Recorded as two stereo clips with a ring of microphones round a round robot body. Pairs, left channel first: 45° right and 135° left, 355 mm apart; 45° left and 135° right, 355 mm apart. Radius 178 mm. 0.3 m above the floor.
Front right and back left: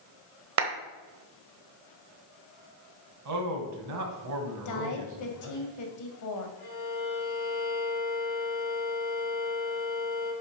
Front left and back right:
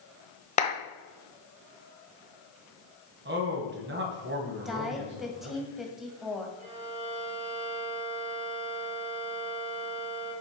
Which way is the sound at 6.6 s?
65° right.